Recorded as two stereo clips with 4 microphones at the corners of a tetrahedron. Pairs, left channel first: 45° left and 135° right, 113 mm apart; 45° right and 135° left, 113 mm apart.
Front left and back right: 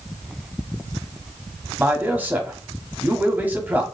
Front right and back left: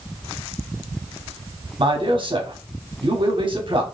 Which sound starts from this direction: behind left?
A man speaking, at 1.8 s.